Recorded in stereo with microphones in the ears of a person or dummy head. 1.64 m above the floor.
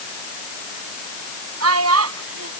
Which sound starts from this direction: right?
A child speaking, at 1.6 s.